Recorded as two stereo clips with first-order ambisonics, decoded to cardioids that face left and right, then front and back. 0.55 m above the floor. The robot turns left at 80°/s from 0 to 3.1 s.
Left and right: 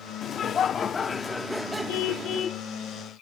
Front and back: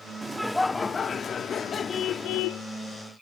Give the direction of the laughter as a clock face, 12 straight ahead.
8 o'clock.